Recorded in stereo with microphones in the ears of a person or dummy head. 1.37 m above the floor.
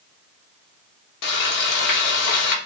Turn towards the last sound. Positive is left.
turn(degrees=60)  # may be behind; listen again after turning